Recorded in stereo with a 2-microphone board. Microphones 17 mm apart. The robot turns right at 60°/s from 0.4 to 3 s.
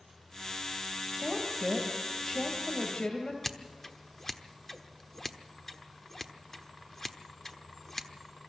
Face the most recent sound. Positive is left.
turn(degrees=15)  # may be behind; listen again after turning